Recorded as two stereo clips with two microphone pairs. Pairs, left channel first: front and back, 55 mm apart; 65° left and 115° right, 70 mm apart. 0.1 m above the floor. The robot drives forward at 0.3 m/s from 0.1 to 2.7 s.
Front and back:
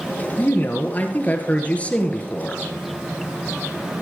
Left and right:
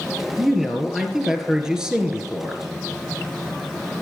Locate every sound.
0.4 s a man speaking: 30° right, 1.8 m; by 2.6 s 55° right, 1.5 m